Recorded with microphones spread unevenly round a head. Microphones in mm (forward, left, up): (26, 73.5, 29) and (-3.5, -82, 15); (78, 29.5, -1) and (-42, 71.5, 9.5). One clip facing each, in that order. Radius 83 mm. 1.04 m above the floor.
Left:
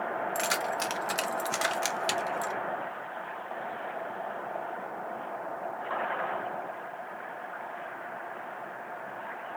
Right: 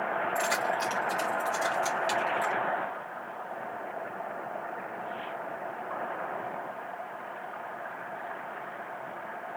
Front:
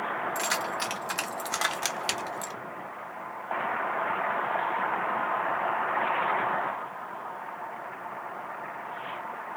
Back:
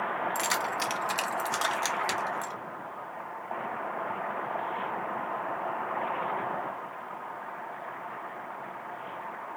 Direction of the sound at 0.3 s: 130° left.